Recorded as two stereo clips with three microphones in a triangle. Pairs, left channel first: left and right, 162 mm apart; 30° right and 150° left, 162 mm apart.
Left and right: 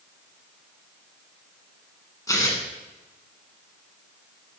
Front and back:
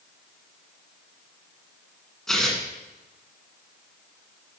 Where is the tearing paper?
55° left, 1.6 m.